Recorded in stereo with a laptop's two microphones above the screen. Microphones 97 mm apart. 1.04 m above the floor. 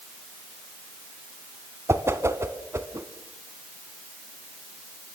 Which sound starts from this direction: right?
A whoosh, at 1.9 s.